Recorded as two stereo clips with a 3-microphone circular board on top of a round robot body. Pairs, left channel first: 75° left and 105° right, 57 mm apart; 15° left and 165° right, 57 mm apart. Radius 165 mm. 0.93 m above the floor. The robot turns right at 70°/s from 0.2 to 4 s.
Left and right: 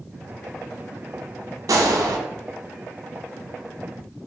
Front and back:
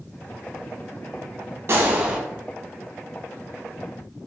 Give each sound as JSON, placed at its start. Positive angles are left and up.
{"t": 1.7, "sound": "a gunshot", "azimuth_deg": -125, "distance_m": 0.7}